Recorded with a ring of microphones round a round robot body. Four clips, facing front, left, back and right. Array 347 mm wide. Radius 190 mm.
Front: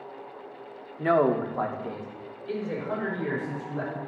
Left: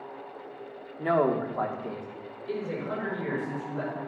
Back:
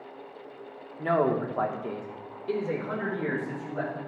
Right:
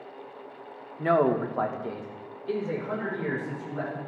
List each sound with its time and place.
1.0 s a man speaking: 35° right, 1.0 m; by 4.0 s 165° right, 3 m